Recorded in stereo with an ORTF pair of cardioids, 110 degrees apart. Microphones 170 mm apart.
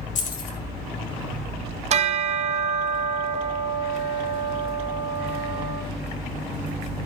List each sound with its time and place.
0.1 s keys jangling: 50° left, 1.8 m
1.9 s a bell: 40° right, 0.9 m